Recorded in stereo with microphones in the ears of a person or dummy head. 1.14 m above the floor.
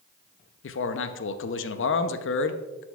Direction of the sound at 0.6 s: 55° left (ahead or behind).